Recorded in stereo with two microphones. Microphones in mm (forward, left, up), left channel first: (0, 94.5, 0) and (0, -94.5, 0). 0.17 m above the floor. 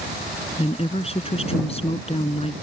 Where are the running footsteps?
I don't hear running footsteps.